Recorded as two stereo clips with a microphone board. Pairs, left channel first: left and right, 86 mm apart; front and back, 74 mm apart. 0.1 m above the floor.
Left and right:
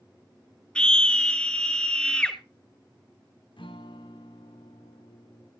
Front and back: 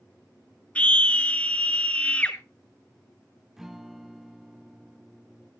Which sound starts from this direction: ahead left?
A scream, at 0.8 s.